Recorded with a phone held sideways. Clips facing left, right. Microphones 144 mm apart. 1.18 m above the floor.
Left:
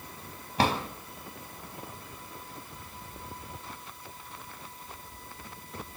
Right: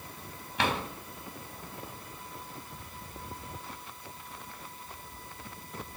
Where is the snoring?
I don't hear snoring.